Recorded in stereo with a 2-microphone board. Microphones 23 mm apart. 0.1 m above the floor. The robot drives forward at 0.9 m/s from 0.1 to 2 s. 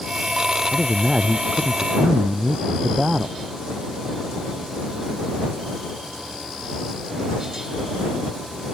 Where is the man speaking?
30° right (ahead or behind); by 3.4 s 35° right (ahead or behind).